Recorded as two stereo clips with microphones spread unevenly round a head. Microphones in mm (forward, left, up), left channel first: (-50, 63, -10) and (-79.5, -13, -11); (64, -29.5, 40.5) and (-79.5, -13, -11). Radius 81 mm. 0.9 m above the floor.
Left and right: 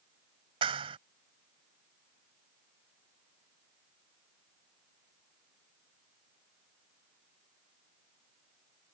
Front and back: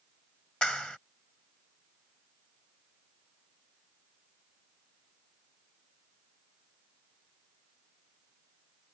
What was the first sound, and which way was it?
A clap, 90° right.